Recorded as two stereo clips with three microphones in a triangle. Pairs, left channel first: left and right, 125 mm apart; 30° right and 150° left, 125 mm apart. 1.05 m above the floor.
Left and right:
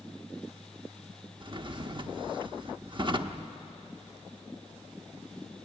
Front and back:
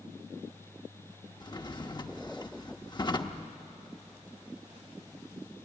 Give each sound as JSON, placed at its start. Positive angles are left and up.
{"t": 1.4, "sound": "a drawer", "azimuth_deg": -65, "distance_m": 0.7}